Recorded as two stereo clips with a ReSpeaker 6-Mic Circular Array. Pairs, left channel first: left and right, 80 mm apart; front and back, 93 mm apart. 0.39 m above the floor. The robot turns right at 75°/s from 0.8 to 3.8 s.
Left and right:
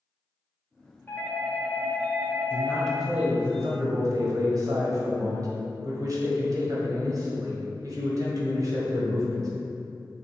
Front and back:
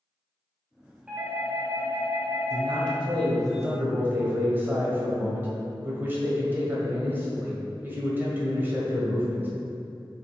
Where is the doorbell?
110° left, 1.6 m; by 3.0 s 100° right, 1.6 m.